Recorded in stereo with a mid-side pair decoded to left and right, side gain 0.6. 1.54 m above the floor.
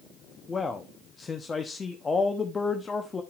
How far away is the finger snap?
I don't hear a finger snap.